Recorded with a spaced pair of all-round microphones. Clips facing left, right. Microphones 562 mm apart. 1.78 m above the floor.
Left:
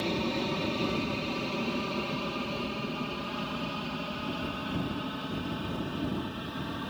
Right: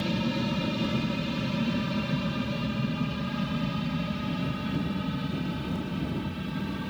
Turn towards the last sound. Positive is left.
turn(degrees=-50)  # may be behind; listen again after turning